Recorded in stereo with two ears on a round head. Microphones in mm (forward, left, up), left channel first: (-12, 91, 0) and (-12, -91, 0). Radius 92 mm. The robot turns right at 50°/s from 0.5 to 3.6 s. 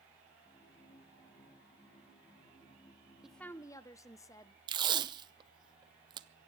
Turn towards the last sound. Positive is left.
turn(degrees=-20)  # may be behind; listen again after turning